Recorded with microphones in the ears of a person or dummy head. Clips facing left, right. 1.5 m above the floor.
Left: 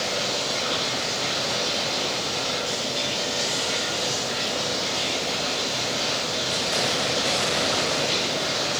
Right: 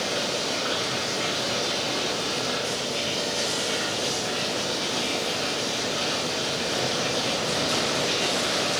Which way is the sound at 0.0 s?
25° right (ahead or behind).